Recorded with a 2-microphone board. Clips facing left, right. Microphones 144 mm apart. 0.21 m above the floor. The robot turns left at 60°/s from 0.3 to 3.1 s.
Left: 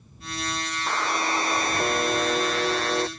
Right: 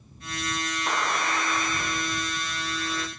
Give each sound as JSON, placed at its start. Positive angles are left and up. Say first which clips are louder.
{"t": 0.9, "sound": "a buzzer", "louder": "left 2 dB", "azimuth_deg": -175}